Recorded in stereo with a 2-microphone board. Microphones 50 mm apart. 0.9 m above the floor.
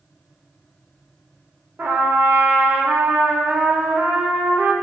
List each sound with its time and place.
1.8 s a trumpet: 40° right (ahead or behind), 0.8 m